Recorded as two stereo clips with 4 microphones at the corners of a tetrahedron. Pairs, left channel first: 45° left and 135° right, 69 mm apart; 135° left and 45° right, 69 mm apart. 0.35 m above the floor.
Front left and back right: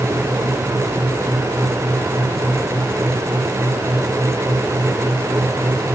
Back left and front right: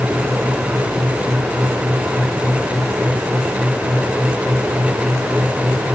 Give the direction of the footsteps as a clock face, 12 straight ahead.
I don't hear footsteps.